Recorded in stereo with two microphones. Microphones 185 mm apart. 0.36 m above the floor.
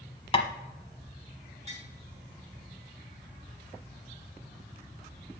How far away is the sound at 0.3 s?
About 1.0 m.